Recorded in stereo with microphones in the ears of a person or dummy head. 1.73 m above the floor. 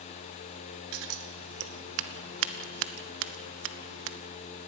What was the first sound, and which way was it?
Scissors, 80° right.